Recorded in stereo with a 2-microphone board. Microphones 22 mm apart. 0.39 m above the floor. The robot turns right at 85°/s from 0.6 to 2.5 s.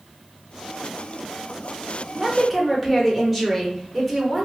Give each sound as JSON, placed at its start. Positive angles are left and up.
{"t": 2.1, "sound": "a woman speaking", "side_deg": -15, "distance_m": 0.8}